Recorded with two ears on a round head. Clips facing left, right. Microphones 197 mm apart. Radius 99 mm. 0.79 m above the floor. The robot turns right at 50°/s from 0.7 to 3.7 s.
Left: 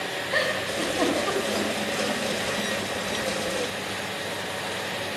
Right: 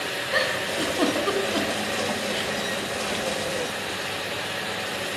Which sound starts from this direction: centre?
A giggle, at 0.3 s.